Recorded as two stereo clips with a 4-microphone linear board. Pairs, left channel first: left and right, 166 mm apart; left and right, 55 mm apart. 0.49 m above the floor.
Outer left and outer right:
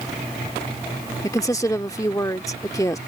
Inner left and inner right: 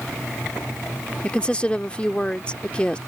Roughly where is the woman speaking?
Centre.